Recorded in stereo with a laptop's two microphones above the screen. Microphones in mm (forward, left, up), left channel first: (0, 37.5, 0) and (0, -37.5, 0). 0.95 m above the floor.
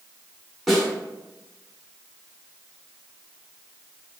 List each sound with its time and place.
0.7 s a snare drum: centre (ahead or behind), 1.0 m